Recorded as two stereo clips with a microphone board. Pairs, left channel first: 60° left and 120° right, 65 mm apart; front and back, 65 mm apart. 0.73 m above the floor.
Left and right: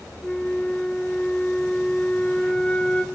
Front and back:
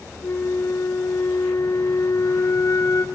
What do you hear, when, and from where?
0.2 s a flute: 10° right, 1.4 m